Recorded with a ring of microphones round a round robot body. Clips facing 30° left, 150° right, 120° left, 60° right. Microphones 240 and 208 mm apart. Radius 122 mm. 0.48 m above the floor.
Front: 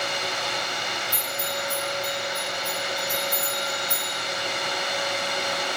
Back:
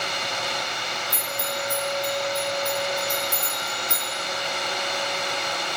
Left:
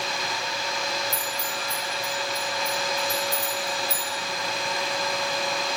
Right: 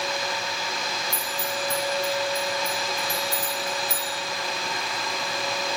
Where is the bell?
95° right, 5 m.